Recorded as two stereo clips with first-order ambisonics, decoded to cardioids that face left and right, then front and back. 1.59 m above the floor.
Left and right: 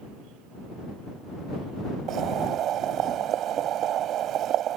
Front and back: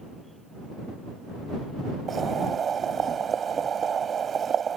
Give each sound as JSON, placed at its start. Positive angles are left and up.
{"t": 2.1, "sound": "boiling", "azimuth_deg": -120}